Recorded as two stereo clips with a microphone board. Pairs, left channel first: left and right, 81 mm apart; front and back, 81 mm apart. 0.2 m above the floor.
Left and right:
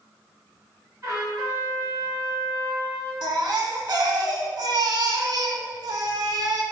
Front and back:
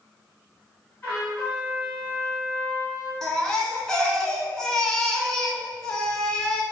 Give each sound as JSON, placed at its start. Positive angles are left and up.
{"t": 1.0, "sound": "a trumpet", "azimuth_deg": -50, "distance_m": 2.0}
{"t": 3.2, "sound": "a baby crying", "azimuth_deg": -80, "distance_m": 0.6}